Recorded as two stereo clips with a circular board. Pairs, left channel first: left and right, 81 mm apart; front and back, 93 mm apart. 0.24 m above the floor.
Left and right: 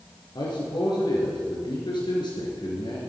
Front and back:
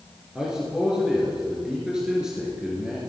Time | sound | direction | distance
0.3 | a man speaking | 100° left | 3.5 m